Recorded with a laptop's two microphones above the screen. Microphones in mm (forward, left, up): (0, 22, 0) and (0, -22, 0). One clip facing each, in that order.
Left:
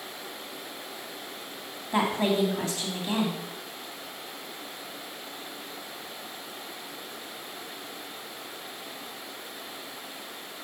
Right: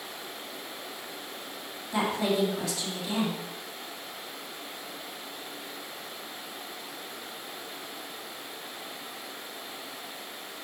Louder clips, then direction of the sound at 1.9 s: Left 2 dB; 40° left (ahead or behind).